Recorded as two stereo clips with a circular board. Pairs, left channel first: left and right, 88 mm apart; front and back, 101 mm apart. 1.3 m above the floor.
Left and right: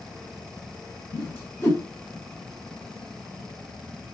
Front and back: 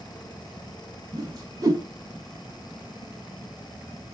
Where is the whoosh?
145° left, 1.4 m.